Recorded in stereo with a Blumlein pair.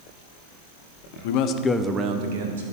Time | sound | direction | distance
1.2 | a man speaking | 50° left | 0.9 m